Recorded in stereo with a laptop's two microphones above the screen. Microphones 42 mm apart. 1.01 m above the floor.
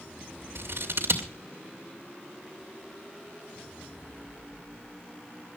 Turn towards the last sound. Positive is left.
turn(degrees=-65)  # may be behind; listen again after turning